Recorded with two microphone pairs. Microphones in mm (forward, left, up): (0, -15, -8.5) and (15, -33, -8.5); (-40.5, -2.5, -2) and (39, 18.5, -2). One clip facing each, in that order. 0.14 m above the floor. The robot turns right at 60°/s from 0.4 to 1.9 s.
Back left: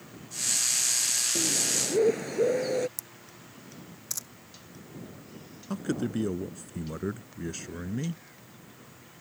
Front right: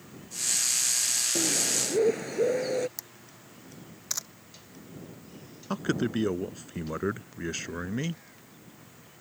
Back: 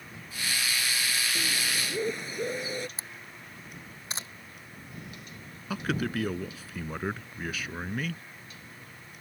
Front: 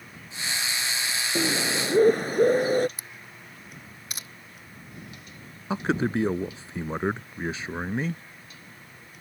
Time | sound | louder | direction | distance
1.4 | a bird | even, front 6 dB | 5° left | ?
3.0 | a camera shutter | even, even | 105° right | ?
5.7 | a man speaking | front right 2 dB, front 5 dB | 25° right | ?